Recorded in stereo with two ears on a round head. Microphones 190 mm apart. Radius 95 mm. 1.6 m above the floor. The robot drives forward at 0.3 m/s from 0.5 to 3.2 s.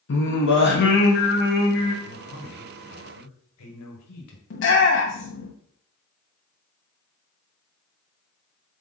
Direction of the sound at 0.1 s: 60° left (ahead or behind).